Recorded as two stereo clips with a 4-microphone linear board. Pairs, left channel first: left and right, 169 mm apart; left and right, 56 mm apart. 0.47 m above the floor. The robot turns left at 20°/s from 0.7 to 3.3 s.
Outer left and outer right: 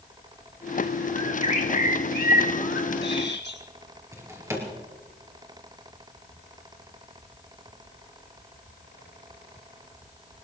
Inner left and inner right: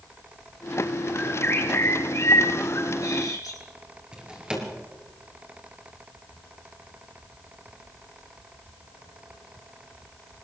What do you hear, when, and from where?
1.1 s a bird: 145° left, 2.5 m; by 3.6 s 100° left, 2.5 m
4.1 s a drawer: 15° right (ahead or behind), 3.5 m